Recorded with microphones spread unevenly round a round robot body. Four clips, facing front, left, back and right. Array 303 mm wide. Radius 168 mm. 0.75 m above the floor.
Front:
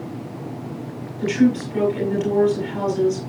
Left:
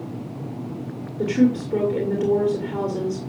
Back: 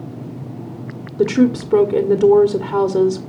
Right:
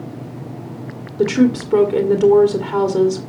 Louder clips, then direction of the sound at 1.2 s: Right 4 dB, back 3 dB; 140° right.